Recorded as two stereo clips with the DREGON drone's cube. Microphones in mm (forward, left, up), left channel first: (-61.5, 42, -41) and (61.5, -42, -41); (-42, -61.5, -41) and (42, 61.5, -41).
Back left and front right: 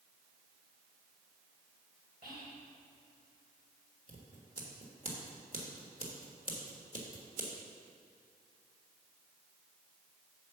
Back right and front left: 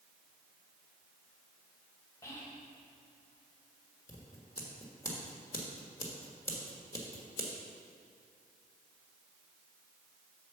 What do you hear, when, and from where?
2.2 s whispering: 55° right, 1.9 m
4.1 s scissors: 55° right, 1.4 m